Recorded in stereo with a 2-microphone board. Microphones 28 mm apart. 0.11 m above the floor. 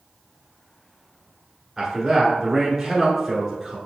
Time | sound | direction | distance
1.8 | a man speaking | 10° right (ahead or behind) | 1.2 m